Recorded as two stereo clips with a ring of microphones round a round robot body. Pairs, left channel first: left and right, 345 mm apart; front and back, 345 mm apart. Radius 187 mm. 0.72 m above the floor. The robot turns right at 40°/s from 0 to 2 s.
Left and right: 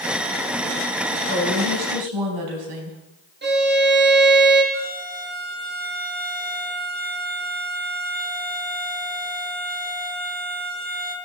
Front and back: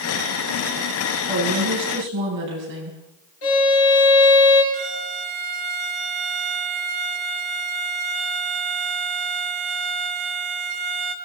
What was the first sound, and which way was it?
A woman speaking, 145° right.